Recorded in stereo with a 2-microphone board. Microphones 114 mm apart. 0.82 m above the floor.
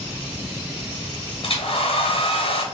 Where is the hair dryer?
55° left (ahead or behind), 0.8 m.